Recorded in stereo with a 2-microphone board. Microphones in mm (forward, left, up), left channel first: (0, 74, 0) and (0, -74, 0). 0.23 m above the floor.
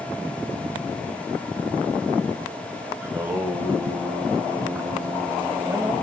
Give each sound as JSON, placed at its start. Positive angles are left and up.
{"t": 3.0, "sound": "singing", "side_deg": -15, "distance_m": 1.1}